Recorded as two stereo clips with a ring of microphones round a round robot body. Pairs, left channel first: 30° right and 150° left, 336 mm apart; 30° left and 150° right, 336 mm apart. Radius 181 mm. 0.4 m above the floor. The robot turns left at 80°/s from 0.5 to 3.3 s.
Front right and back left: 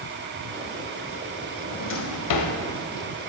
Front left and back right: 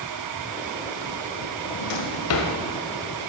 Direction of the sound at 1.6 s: 40° left.